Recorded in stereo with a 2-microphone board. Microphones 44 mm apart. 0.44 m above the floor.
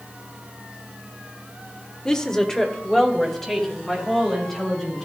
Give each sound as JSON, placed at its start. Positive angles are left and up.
{"t": 2.0, "sound": "a woman speaking", "side_deg": 20, "distance_m": 0.9}